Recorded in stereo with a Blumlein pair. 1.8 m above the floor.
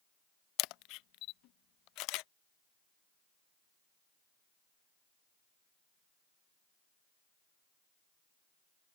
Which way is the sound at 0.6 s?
40° left.